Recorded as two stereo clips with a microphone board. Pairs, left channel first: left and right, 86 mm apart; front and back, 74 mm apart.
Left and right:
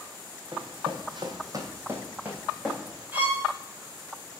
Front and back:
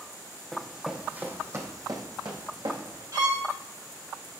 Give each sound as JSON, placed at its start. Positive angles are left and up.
{"t": 0.5, "sound": "running footsteps", "azimuth_deg": -90, "distance_m": 1.5}
{"t": 3.1, "sound": "a violin", "azimuth_deg": -160, "distance_m": 2.0}